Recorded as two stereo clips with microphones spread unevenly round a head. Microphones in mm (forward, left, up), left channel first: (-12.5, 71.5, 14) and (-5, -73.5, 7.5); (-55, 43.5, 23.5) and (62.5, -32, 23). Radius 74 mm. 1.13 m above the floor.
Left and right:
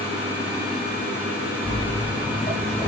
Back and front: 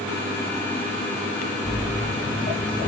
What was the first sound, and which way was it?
Footsteps, 85° left.